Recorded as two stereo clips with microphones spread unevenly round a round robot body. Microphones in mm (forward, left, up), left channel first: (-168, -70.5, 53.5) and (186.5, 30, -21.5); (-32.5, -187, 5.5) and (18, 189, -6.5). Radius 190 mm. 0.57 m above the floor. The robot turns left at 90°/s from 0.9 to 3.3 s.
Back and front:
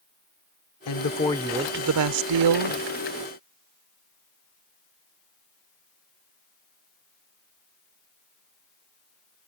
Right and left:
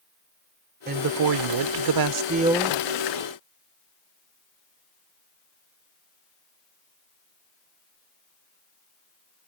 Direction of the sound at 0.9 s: 145° left.